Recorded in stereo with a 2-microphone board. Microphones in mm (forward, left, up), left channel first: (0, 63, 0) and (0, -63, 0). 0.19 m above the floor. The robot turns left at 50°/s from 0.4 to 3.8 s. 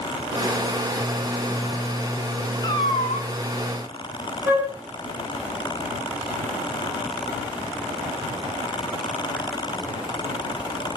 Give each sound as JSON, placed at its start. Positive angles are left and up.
{"t": 2.6, "sound": "a cat meowing", "azimuth_deg": 150, "distance_m": 1.6}
{"t": 4.5, "sound": "a flute", "side_deg": -15, "distance_m": 6.0}